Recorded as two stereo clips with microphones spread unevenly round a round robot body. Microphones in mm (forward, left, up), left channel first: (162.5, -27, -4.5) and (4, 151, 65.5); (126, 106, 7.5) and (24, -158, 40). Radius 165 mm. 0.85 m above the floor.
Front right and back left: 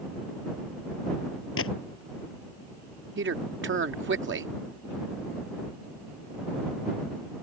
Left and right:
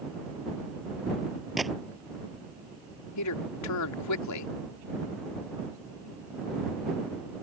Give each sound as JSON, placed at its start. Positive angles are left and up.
{"t": 1.6, "sound": "a gunshot", "azimuth_deg": -20}
{"t": 3.2, "sound": "a man speaking", "azimuth_deg": 90}